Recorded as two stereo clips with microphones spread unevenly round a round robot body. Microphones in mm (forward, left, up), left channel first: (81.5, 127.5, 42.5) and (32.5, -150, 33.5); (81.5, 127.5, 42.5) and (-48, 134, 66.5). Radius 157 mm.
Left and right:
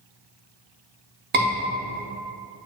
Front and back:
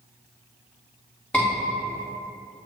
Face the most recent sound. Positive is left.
turn(degrees=-70)